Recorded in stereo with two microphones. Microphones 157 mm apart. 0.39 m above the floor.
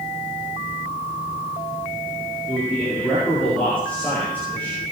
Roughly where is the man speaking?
Centre.